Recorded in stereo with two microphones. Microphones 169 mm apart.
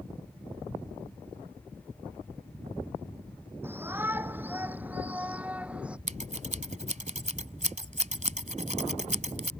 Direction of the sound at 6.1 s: 45° right (ahead or behind).